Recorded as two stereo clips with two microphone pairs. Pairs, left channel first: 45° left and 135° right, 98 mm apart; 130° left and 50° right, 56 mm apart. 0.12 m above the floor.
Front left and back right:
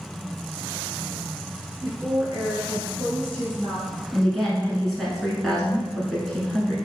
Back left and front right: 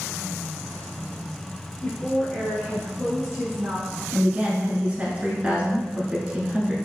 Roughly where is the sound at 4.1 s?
Ahead right.